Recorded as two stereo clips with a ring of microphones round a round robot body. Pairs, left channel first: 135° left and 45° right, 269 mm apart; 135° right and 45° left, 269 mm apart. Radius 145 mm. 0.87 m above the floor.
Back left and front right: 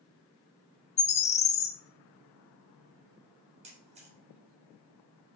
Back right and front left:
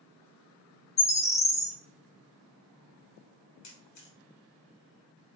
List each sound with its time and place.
1.0 s a bird: 160° left, 0.5 m
3.6 s a camera shutter: 110° right, 3 m